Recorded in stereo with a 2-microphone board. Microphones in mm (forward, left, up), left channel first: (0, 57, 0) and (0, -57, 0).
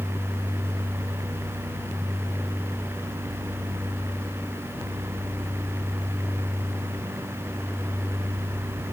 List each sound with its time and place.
Only background noise.